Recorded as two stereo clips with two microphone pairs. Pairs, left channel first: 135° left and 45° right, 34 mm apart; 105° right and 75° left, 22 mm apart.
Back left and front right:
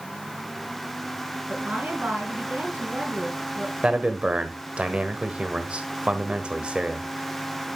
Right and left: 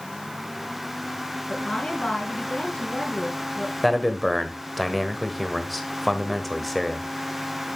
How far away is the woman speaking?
About 5 m.